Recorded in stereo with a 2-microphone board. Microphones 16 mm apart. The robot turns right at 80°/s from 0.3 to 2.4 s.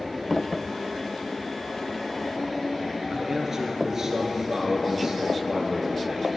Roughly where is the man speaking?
Right.